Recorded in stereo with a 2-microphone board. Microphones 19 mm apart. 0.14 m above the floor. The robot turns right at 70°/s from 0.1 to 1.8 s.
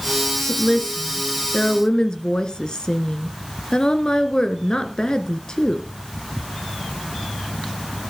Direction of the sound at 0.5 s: 10° left.